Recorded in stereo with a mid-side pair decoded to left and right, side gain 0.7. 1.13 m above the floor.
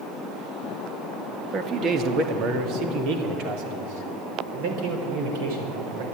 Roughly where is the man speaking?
Ahead right.